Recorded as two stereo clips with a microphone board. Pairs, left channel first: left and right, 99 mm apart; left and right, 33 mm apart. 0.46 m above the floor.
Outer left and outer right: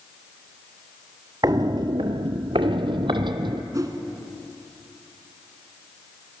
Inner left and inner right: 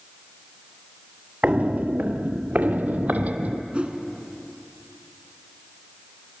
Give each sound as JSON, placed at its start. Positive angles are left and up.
{"t": 1.4, "sound": "footsteps", "side_deg": -40, "distance_m": 0.7}
{"t": 3.7, "sound": "a whoosh", "side_deg": -35, "distance_m": 1.4}